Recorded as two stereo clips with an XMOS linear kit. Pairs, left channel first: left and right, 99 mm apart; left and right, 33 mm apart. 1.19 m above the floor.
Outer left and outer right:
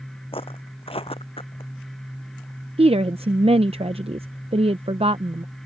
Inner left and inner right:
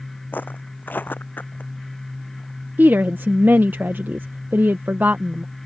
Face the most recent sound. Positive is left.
turn(degrees=-80)